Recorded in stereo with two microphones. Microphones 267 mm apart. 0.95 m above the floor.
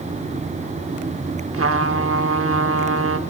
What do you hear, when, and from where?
1.5 s a trumpet: 60° right (ahead or behind), 0.9 m